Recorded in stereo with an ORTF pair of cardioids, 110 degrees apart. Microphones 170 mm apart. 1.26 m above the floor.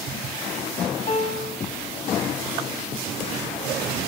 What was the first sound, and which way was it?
A piano, 40° left.